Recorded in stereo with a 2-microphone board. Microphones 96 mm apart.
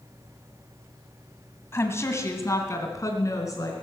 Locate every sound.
1.7 s a woman speaking: 25° left (ahead or behind), 1.8 m; by 3.7 s 35° left (ahead or behind), 3.5 m